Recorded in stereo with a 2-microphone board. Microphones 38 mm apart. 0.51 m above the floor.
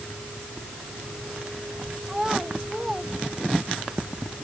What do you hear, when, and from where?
2.1 s a child speaking: 15° right (ahead or behind); by 3.9 s 10° right (ahead or behind)